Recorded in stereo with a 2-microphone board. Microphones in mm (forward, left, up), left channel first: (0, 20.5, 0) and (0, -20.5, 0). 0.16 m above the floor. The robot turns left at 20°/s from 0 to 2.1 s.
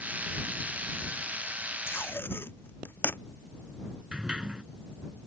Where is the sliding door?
20° right (ahead or behind).